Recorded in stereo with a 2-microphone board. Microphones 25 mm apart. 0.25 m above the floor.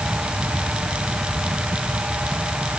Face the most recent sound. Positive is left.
No sound to turn to.